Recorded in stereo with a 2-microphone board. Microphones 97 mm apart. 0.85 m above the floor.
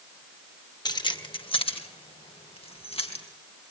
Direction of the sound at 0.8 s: 45° left (ahead or behind).